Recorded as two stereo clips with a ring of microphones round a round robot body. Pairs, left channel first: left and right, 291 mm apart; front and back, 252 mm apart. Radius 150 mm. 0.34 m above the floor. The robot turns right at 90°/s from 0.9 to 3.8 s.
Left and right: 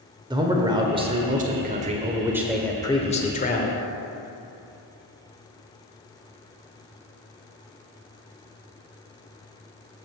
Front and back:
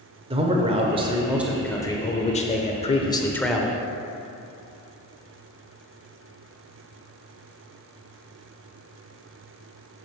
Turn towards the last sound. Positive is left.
turn(degrees=115)